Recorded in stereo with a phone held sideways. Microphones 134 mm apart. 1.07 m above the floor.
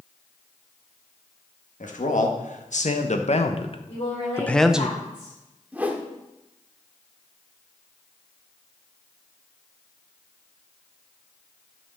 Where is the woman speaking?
45° left (ahead or behind), 5.5 m.